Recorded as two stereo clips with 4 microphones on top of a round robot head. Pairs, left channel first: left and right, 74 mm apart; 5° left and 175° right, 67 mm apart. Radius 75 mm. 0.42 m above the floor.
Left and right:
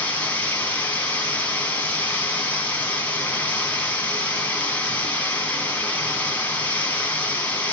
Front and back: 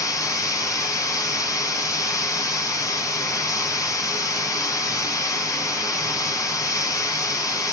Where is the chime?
No chime in this recording.